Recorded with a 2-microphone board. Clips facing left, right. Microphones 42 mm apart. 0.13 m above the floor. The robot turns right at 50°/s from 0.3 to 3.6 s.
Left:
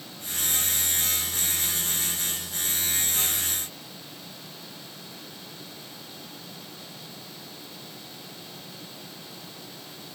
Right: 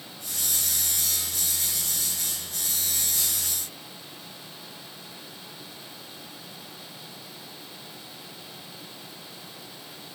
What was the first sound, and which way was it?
Only background noise.